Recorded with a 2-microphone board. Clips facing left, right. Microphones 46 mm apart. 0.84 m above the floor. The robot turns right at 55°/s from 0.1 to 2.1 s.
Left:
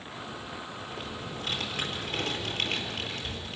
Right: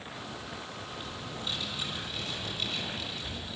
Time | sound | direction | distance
0.9 | typing on a keyboard | 50° left | 4 m